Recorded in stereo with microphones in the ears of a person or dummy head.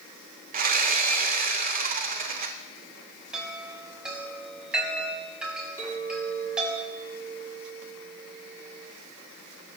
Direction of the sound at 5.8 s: 15° right (ahead or behind).